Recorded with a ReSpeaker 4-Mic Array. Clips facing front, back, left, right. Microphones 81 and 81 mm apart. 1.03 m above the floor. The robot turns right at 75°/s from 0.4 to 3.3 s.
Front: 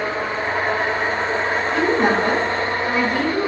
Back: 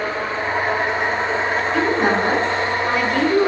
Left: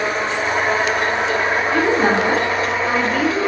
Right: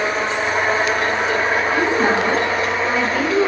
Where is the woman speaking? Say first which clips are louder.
Front 1 dB, left 3 dB; 85° left, 4 m; by 3.5 s 155° right, 4 m.